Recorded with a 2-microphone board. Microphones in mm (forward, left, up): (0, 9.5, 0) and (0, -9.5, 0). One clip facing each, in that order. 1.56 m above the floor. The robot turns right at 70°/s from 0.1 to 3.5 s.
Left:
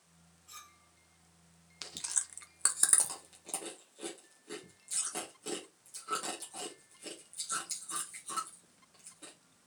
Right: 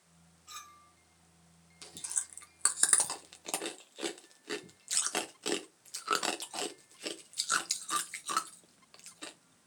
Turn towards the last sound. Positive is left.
turn(degrees=-55)  # may be behind; listen again after turning